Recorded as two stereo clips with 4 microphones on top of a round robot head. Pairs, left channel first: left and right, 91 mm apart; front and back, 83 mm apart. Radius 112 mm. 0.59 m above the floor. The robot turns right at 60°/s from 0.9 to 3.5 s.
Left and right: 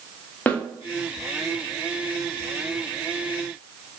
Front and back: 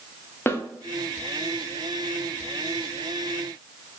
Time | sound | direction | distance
0.5 | a snare drum | 30° left | 1.2 m